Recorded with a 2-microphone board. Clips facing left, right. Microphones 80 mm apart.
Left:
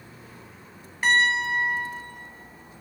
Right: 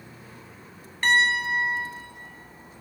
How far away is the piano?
About 1.4 m.